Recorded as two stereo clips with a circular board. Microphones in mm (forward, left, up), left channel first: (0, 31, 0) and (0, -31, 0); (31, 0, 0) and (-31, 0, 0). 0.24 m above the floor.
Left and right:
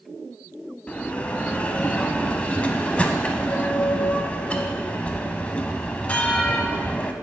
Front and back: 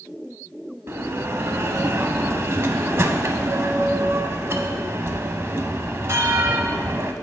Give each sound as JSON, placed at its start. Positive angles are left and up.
{"t": 0.9, "sound": "a bell", "azimuth_deg": 155, "distance_m": 0.5}